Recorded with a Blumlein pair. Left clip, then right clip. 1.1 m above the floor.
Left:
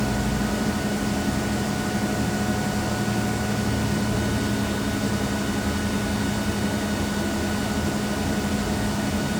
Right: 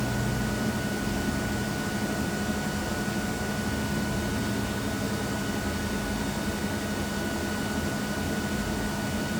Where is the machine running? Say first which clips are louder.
Left 4 dB; 15° left, 0.9 m.